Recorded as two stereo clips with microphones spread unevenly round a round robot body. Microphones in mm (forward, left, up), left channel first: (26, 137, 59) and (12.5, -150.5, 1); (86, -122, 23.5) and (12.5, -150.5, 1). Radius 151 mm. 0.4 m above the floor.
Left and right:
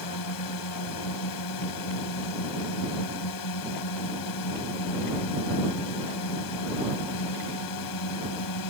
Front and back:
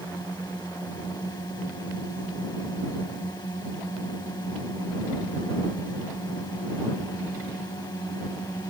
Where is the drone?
85° left.